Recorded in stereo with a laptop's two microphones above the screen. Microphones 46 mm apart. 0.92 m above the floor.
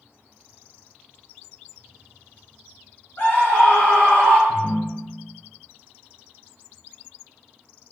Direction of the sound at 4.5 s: 70° left (ahead or behind).